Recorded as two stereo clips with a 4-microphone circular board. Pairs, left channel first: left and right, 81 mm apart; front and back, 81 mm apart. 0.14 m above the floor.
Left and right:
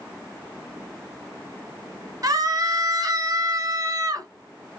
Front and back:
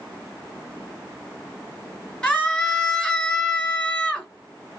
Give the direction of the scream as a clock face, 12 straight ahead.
2 o'clock.